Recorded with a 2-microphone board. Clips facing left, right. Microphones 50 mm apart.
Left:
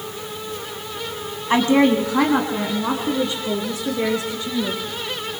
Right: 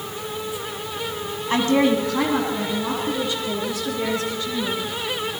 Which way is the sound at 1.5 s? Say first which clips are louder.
Left 3 dB; 25° left (ahead or behind).